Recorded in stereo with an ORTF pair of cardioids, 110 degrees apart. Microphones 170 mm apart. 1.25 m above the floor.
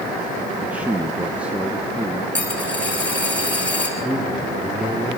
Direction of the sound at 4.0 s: 5° right.